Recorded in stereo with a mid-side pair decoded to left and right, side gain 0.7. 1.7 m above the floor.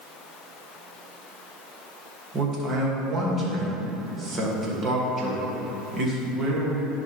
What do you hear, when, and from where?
2.3 s a man speaking: 30° right, 2.5 m